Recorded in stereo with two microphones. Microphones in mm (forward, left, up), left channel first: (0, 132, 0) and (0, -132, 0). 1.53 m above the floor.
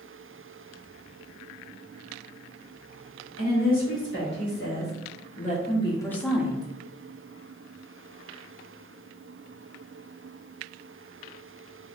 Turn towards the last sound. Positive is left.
turn(degrees=-15)  # may be behind; listen again after turning